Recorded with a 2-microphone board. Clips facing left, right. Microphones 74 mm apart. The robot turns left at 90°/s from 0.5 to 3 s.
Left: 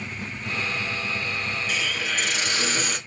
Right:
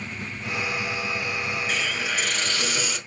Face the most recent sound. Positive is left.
turn(degrees=115)